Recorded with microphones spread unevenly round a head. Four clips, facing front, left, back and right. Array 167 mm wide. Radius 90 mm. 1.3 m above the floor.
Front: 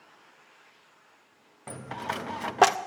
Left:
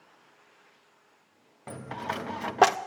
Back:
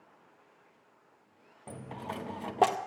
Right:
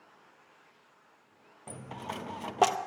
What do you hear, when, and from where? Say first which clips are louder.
1.7 s a dropped coin: left 6 dB, front 6 dB; 10° right, 0.6 m